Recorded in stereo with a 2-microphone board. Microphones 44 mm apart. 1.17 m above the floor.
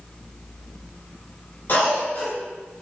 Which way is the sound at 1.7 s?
45° left (ahead or behind).